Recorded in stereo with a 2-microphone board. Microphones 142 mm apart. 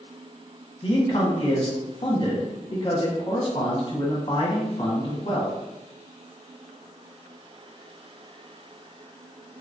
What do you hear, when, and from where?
0.8 s a man speaking: 40° left (ahead or behind), 0.8 m